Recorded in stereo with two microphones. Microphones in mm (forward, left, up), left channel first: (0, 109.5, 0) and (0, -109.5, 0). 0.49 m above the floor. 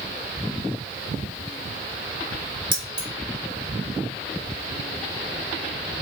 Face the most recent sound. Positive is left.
turn(degrees=-20)  # may be behind; listen again after turning